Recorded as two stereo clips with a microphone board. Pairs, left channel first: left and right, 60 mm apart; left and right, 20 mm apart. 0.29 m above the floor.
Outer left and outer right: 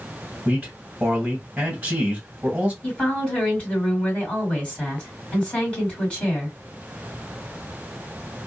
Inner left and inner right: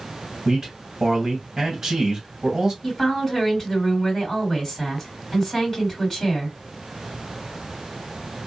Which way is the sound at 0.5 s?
15° right (ahead or behind).